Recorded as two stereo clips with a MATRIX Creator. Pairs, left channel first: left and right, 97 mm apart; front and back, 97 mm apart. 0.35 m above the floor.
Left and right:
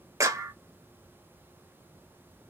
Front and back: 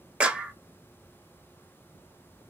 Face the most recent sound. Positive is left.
turn(degrees=-110)